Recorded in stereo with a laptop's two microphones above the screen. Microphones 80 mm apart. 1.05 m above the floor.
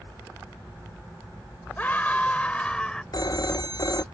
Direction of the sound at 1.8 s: 20° left (ahead or behind).